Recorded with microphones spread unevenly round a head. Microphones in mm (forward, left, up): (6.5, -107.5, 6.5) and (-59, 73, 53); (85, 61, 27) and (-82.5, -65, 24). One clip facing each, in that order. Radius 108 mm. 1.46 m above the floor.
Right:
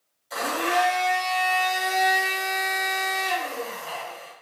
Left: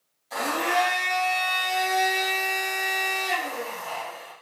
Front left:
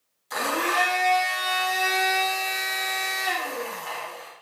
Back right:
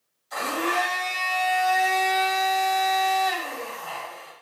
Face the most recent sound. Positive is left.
turn(degrees=15)